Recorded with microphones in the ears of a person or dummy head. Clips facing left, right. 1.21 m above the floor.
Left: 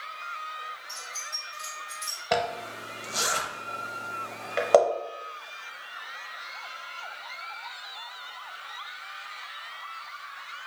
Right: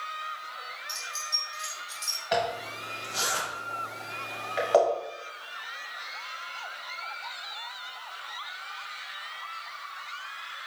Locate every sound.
0.9 s keys jangling: 15° right (ahead or behind), 1.4 m; by 2.2 s 20° left (ahead or behind), 2.5 m
2.3 s a zipper: 60° left (ahead or behind), 0.9 m